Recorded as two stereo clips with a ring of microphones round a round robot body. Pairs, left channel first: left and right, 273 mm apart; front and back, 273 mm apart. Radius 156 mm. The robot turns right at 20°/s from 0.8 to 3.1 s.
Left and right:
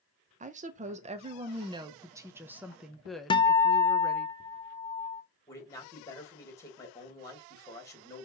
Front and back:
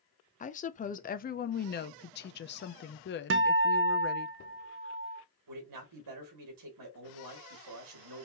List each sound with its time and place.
0.4 s a woman speaking: 45° right, 0.5 m; by 4.3 s straight ahead, 0.5 m
3.3 s a guitar: 160° left, 0.5 m
5.5 s a man speaking: 170° left, 2.5 m